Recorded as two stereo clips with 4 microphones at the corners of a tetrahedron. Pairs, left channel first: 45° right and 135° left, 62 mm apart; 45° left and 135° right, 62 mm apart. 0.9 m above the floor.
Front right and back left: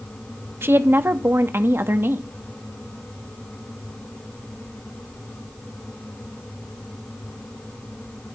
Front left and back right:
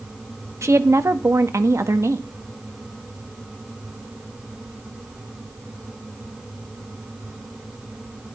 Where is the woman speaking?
175° right, 0.9 m.